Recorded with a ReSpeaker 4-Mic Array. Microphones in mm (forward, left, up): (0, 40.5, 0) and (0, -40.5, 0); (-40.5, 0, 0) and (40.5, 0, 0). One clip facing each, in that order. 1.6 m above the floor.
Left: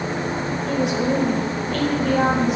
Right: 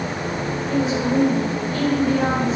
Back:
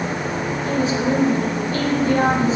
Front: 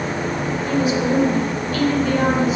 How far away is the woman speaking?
About 2 m.